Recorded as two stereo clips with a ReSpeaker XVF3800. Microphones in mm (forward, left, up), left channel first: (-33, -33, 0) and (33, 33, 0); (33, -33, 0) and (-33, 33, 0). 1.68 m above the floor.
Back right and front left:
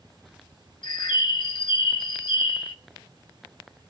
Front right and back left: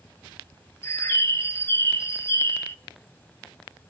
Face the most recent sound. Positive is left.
turn(degrees=-110)